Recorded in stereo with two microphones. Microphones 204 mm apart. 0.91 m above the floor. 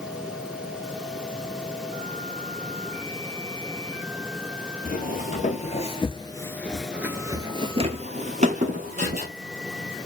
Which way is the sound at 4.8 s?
45° left (ahead or behind).